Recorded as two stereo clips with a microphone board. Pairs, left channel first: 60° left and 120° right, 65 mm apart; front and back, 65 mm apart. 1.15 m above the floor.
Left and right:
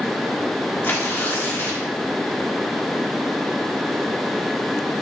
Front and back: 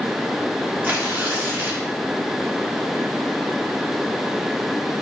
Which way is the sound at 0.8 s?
120° left.